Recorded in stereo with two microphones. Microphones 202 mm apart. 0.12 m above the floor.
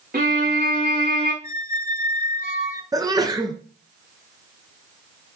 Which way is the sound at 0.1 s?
50° right (ahead or behind).